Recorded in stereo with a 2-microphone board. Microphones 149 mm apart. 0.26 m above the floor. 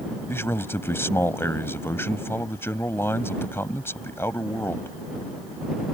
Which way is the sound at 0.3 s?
15° left (ahead or behind).